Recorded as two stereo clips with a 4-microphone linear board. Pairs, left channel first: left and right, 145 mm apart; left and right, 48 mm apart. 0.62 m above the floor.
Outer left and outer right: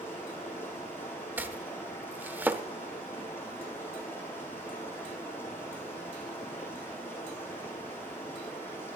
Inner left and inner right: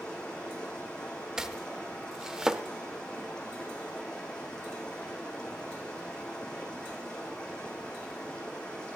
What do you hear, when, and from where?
0.0 s running water: 15° left (ahead or behind), 7 m
1.4 s chopping: 15° right (ahead or behind), 0.8 m